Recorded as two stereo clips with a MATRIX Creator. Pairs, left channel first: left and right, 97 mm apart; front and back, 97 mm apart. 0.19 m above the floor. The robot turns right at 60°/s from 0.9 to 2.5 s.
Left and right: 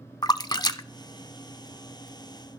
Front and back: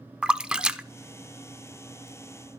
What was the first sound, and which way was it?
A splash, 105° left.